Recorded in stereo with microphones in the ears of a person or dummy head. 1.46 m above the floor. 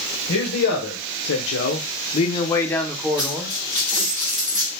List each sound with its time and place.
0.3 s a man speaking: 75° left (ahead or behind), 1.1 m; by 3.5 s 10° right (ahead or behind), 1.0 m
3.2 s a dropped coin: 15° left (ahead or behind), 2 m